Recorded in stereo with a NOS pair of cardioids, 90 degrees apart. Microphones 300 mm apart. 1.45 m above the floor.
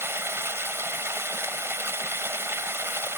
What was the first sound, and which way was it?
Running water, 10° right.